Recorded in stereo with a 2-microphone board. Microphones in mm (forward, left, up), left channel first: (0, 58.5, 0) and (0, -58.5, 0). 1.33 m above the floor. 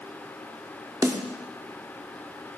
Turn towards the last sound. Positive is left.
turn(degrees=-25)  # may be behind; listen again after turning